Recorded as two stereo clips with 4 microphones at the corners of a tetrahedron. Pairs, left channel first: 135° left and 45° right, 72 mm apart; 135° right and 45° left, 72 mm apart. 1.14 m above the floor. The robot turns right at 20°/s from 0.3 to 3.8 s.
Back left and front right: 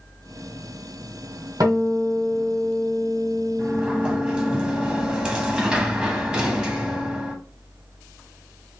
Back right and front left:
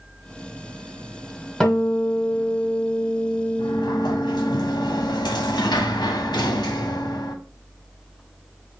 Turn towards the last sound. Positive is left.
turn(degrees=-120)